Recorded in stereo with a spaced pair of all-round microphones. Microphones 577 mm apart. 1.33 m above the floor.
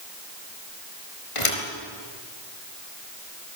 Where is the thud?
60° left (ahead or behind), 4.5 m.